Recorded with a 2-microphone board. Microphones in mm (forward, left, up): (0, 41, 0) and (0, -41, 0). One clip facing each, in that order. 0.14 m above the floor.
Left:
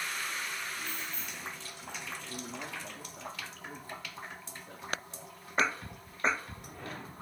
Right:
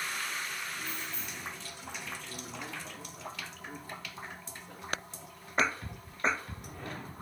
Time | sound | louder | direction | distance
0.8 | keys jangling | even | centre (ahead or behind) | 2 m
2.2 | a man speaking | left 1 dB | 45° left (ahead or behind) | 8.5 m